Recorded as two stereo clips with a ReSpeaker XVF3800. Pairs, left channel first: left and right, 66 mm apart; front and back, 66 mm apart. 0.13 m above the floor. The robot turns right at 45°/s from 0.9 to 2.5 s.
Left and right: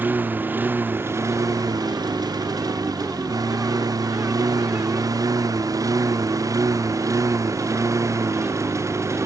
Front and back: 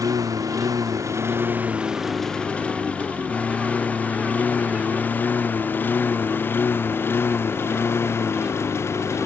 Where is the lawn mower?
150° right; by 9.3 s 50° right.